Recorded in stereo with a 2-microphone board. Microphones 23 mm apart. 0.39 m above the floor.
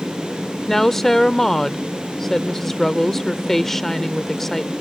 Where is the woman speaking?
15° left (ahead or behind).